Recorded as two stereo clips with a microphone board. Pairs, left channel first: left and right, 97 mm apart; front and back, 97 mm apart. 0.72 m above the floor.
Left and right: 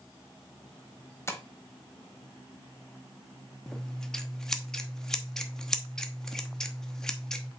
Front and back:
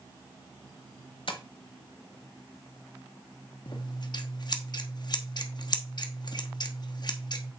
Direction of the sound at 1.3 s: 25° left.